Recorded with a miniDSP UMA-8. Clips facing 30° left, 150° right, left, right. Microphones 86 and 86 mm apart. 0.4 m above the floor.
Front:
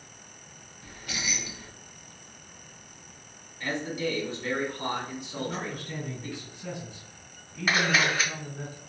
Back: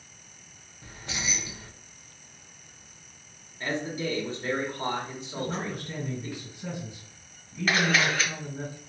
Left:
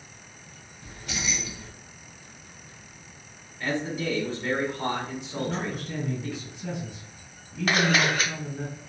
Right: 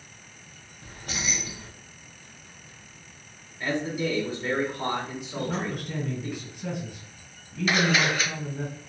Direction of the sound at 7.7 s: 105° left.